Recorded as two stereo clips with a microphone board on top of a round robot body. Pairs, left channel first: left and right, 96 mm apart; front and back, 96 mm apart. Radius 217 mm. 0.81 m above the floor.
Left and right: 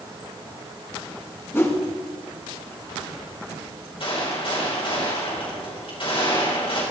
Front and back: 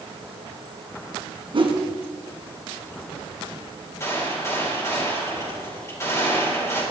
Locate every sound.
1.5 s a whoosh: 155° left, 2.0 m
4.0 s a gunshot: 60° left, 6 m